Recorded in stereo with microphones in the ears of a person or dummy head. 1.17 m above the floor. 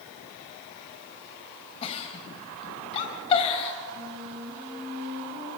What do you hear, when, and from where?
1.8 s a giggle: 35° left (ahead or behind), 2 m
4.0 s a flute: 30° right (ahead or behind), 5 m